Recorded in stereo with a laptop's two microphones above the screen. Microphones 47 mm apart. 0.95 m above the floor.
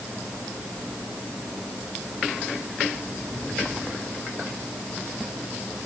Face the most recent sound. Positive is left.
No sound to turn to.